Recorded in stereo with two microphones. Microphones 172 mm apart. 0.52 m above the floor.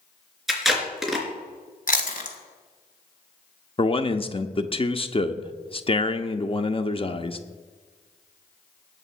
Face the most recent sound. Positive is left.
turn(degrees=35)  # may be behind; listen again after turning